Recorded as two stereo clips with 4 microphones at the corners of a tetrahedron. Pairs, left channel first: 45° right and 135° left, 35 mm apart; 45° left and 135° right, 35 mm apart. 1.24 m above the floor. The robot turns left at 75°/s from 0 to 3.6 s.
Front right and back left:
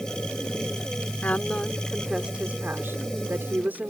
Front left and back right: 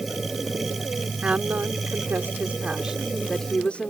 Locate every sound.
1.2 s a woman speaking: 85° right; by 3.9 s 100° left